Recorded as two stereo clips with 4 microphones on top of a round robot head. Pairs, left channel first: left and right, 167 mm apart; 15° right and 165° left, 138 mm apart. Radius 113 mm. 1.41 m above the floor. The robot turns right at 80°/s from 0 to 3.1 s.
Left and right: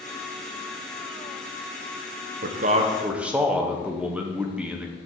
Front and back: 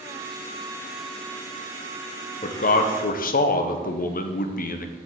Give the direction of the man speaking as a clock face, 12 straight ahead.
2 o'clock.